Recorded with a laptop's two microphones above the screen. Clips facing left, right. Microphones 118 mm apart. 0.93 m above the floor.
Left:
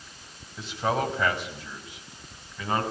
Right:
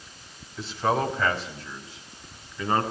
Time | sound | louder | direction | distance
0.6 | a man speaking | right 2 dB | 20° left (ahead or behind) | 5 m